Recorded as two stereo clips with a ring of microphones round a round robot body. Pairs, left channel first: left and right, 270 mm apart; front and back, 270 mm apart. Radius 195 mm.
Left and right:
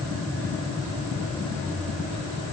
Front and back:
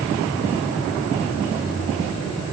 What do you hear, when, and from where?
Only background noise.